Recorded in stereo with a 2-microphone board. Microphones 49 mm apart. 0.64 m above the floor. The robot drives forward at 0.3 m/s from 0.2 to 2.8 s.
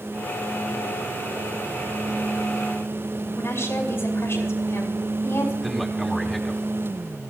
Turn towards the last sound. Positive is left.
turn(degrees=-5)  # may be behind; listen again after turning